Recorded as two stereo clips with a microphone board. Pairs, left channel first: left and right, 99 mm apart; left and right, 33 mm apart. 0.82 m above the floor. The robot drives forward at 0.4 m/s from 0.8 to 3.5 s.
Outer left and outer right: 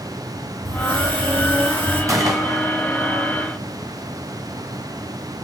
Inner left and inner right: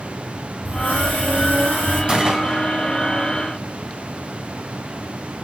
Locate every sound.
0.7 s a hiss: 65° right (ahead or behind), 4.5 m; by 2.0 s 70° right (ahead or behind), 4 m
2.1 s a gunshot: 35° right (ahead or behind), 2 m